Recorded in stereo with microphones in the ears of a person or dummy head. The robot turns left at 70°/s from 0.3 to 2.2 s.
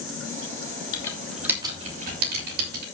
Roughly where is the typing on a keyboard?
Left.